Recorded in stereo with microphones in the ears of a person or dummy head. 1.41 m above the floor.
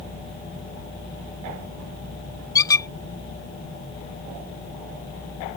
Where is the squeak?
20° left (ahead or behind).